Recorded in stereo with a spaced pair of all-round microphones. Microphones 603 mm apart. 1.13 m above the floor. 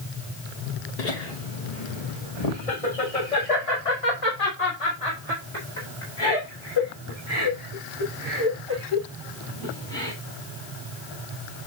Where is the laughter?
85° left, 1.2 m; by 10.1 s 45° left (ahead or behind), 7 m.